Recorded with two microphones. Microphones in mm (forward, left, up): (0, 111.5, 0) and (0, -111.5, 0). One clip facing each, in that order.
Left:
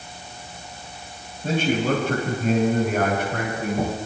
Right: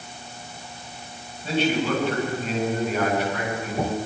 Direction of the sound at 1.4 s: 50° left (ahead or behind).